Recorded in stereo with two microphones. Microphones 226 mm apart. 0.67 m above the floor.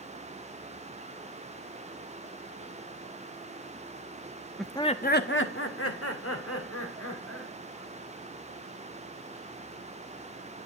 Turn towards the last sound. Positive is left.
turn(degrees=80)